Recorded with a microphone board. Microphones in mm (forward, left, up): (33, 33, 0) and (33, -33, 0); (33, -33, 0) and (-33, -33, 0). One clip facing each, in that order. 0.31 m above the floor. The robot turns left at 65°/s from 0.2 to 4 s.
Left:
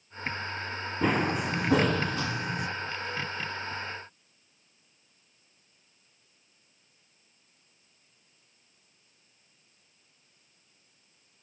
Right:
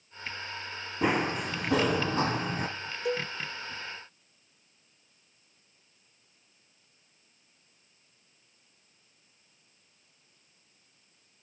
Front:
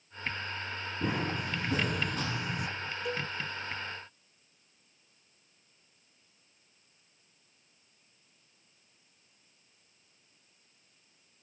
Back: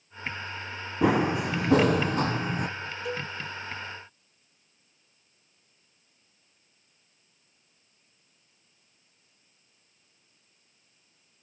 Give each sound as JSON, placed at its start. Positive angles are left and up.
{"t": 1.0, "sound": "running footsteps", "azimuth_deg": -170, "distance_m": 1.4}
{"t": 3.0, "sound": "a cowbell", "azimuth_deg": -90, "distance_m": 1.2}